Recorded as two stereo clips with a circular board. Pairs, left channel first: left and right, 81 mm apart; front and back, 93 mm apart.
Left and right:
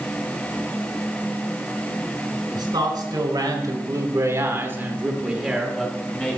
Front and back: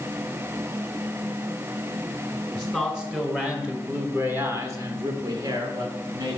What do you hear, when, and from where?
2.5 s a man speaking: 90° right, 1.9 m; by 6.4 s 160° left, 1.4 m